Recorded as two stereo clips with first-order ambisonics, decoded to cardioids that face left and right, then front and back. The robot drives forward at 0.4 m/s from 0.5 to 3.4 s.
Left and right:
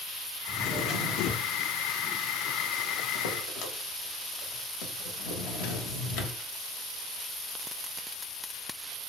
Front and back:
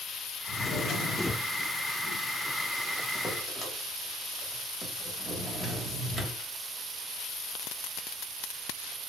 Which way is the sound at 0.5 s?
35° left.